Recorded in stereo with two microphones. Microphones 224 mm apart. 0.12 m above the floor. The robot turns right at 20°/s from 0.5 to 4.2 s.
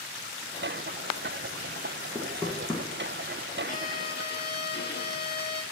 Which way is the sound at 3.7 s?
35° left (ahead or behind).